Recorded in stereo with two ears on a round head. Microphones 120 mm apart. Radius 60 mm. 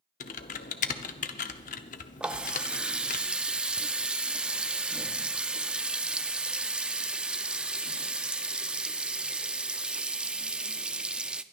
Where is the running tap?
10° right (ahead or behind), 0.5 m.